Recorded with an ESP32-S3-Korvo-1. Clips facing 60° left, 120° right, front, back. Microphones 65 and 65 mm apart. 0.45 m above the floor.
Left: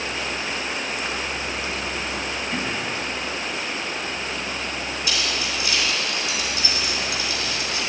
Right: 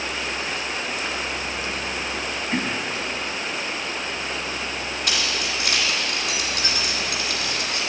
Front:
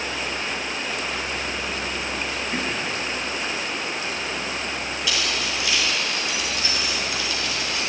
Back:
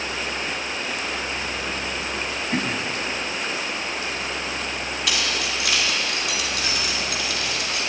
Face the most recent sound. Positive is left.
turn(degrees=-155)